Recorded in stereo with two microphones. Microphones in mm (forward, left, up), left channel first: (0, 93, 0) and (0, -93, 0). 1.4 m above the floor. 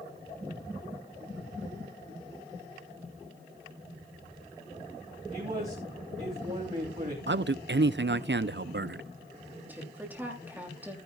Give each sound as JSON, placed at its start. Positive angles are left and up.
{"t": 5.3, "sound": "a man speaking", "side_deg": -40, "distance_m": 3.0}
{"t": 7.3, "sound": "a man speaking", "side_deg": -75, "distance_m": 0.5}
{"t": 9.7, "sound": "a woman speaking", "side_deg": -10, "distance_m": 3.0}